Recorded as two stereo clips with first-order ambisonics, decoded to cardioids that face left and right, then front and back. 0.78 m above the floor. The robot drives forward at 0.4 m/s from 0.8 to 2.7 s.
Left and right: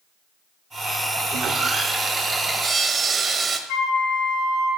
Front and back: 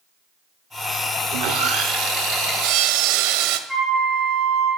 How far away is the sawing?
About 0.8 m.